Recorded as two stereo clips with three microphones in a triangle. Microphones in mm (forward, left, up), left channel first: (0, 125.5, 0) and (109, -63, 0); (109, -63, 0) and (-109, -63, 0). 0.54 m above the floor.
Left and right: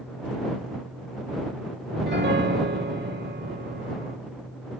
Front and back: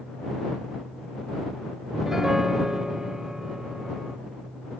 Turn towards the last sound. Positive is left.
turn(degrees=-90)